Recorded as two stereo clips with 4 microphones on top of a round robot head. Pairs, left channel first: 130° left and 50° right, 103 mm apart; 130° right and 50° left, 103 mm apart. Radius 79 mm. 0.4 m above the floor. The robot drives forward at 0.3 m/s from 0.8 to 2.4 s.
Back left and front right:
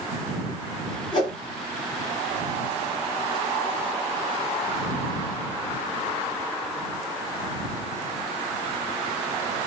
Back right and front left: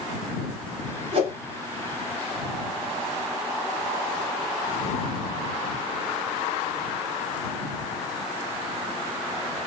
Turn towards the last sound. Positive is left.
turn(degrees=100)